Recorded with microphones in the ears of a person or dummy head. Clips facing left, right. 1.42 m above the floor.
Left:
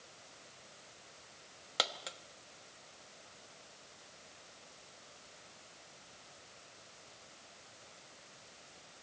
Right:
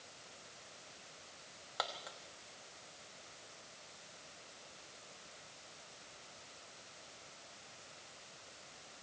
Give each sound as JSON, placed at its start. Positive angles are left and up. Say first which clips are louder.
{"t": 1.8, "sound": "a dropped coin", "louder": "left 3 dB", "side_deg": 45, "distance_m": 1.0}